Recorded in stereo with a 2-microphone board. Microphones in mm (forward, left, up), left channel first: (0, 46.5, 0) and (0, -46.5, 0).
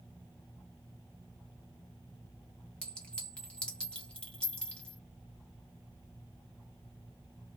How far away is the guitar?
I don't hear a guitar.